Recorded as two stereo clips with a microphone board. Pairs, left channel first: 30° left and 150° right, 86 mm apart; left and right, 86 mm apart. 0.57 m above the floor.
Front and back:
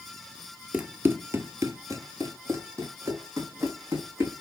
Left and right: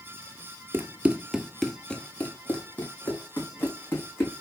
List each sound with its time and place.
0.7 s running footsteps: 100° right, 0.6 m; by 4.4 s 155° left, 2.5 m